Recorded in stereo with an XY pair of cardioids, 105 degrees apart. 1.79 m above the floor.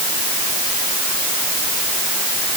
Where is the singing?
No singing in this recording.